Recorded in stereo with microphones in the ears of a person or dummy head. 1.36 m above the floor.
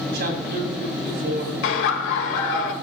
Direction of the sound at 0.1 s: 60° right (ahead or behind).